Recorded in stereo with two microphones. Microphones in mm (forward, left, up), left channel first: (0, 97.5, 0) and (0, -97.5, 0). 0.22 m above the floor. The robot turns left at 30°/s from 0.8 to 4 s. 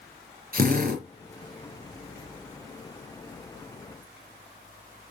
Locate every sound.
0.5 s a drill: 50° right (ahead or behind), 3.5 m; by 1.0 s 55° right (ahead or behind), 3.5 m